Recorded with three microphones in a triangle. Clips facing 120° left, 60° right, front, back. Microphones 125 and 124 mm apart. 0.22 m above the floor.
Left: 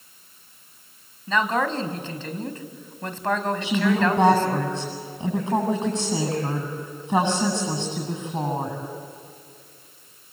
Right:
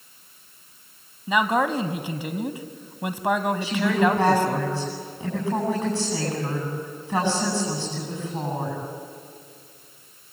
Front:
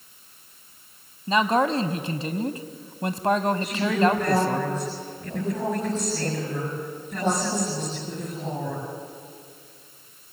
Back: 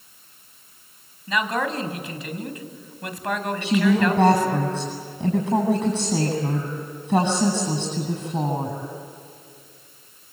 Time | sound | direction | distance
1.3 | a man speaking | 5° left | 1.5 m
3.6 | a woman speaking | 170° right | 9 m